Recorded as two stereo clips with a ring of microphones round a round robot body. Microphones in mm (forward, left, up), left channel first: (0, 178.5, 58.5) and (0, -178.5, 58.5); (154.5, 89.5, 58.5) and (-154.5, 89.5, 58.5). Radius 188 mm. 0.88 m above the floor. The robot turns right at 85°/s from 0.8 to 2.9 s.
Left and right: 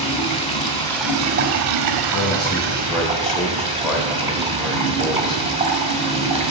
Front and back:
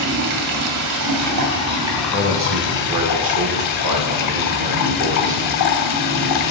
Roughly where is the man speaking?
Left.